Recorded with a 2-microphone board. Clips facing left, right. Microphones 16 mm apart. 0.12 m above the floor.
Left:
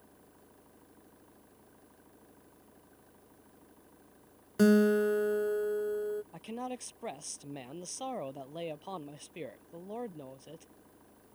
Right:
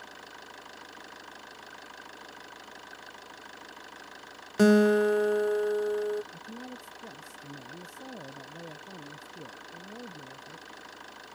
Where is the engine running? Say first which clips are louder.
Right 14 dB; 75° right (ahead or behind).